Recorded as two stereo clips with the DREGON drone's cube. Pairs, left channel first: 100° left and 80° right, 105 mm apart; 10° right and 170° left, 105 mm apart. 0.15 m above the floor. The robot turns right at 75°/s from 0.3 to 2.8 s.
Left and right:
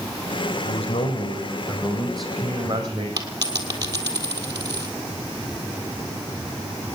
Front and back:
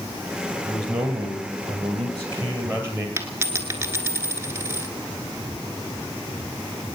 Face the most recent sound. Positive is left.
turn(degrees=-125)